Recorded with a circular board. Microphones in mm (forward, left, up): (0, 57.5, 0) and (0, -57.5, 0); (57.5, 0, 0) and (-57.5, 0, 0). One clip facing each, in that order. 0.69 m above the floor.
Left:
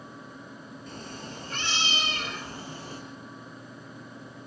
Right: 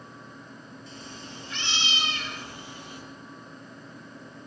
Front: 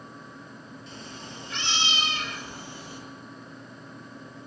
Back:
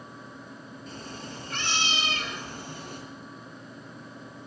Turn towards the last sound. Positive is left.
turn(degrees=145)